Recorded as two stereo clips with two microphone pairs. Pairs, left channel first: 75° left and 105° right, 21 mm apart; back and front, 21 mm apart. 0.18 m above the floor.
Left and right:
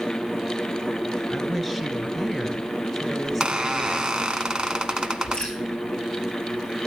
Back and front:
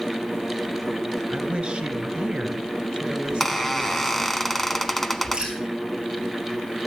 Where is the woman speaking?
10° right, 3 m.